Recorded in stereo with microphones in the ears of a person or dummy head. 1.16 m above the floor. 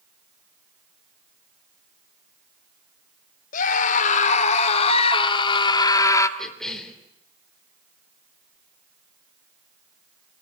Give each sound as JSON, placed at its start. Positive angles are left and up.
{"t": 3.5, "sound": "a scream", "side_deg": 45, "distance_m": 3.5}
{"t": 6.4, "sound": "a cough", "side_deg": 0, "distance_m": 4.5}